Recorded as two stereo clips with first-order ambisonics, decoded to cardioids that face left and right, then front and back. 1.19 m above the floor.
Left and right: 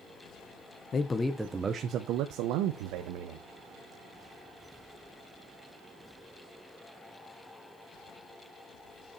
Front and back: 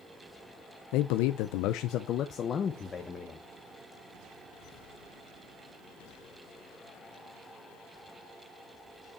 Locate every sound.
0.9 s a man speaking: 25° left, 0.6 m; by 3.5 s 80° right, 1.2 m